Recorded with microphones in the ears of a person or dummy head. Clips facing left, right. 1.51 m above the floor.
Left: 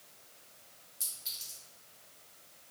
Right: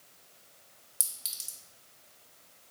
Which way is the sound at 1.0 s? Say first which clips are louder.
Right 1 dB; 40° right (ahead or behind).